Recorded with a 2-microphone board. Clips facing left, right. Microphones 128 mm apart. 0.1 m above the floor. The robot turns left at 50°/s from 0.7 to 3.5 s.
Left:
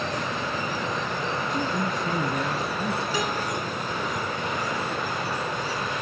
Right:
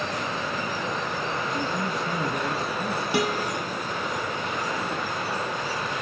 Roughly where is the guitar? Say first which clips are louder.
Right 2 dB; right.